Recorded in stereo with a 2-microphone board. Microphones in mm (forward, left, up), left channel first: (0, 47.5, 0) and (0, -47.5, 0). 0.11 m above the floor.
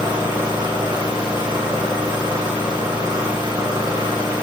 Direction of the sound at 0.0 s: 45° right (ahead or behind).